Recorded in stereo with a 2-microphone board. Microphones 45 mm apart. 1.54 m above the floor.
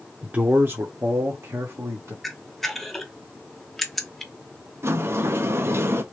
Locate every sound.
0.2 s a man speaking: 30° right (ahead or behind), 0.9 m; by 2.1 s 85° right, 1.8 m
2.2 s a camera shutter: 5° left (ahead or behind), 0.7 m
4.8 s a sliding door: 60° right (ahead or behind), 0.7 m